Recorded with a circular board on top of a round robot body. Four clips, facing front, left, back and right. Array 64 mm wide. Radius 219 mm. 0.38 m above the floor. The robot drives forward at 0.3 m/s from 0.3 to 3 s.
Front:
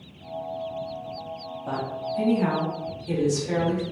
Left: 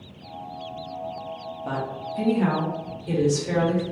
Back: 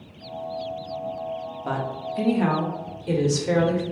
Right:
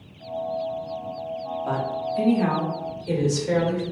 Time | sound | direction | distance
1.6 | a woman speaking | straight behind | 1.2 m